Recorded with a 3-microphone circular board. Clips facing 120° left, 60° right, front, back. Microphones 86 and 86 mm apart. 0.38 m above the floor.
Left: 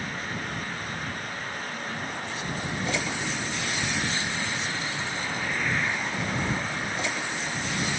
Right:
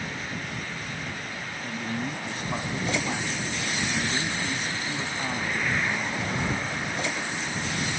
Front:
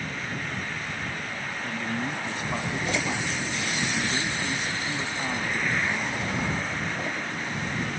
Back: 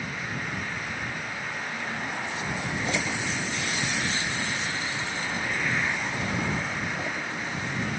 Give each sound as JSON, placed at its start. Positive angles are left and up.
{"t": 1.6, "sound": "a man speaking", "azimuth_deg": -25}